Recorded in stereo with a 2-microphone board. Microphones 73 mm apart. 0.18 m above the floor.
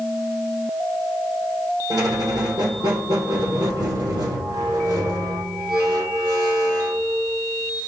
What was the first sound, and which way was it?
A squeak, 65° right (ahead or behind).